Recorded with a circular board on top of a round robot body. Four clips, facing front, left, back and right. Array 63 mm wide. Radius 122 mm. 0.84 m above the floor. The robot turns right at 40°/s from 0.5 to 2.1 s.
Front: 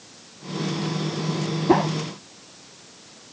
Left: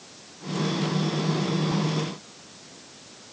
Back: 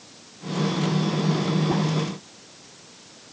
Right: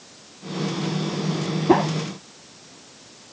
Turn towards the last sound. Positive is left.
turn(degrees=-35)